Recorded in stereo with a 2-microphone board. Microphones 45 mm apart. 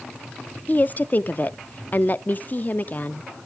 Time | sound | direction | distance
0.7 | a woman speaking | 40° left (ahead or behind) | 0.5 m